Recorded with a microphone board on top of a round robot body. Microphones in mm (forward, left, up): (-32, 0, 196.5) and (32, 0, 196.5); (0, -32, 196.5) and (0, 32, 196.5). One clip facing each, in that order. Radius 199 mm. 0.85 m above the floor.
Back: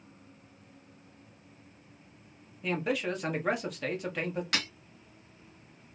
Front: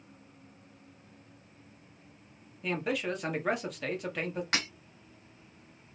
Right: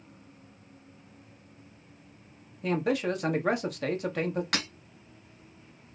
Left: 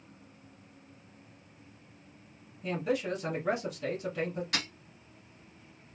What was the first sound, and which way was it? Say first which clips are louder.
A man speaking: back 1 dB, right 4 dB; 90° right.